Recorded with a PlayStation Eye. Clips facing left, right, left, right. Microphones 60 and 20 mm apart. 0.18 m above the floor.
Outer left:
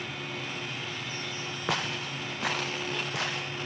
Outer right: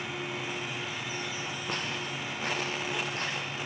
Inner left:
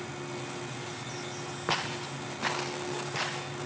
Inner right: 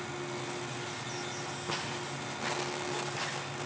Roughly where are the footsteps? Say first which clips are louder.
Outer left 5 dB, inner left 6 dB; left.